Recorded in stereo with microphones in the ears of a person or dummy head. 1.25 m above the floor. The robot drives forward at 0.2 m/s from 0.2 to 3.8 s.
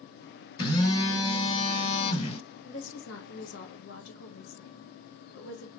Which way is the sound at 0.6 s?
25° left (ahead or behind).